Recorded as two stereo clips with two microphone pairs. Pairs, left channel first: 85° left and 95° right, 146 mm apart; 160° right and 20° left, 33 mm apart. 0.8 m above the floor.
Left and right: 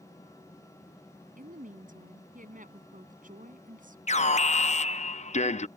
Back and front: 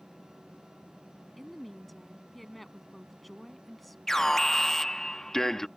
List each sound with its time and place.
1.4 s a woman speaking: 70° right
4.1 s an alarm: 120° left